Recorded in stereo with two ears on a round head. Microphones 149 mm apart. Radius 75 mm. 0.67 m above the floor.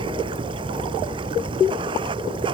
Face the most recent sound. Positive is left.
turn(degrees=-30)  # may be behind; listen again after turning